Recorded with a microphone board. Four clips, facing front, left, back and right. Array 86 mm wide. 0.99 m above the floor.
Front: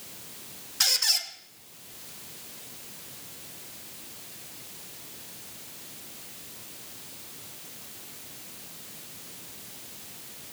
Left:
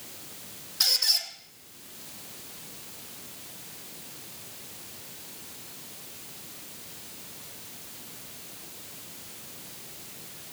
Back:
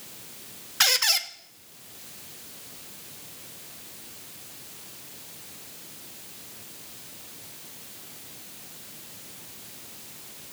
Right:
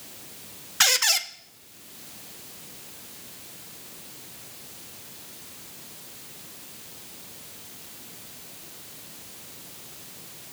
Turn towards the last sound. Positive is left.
turn(degrees=-130)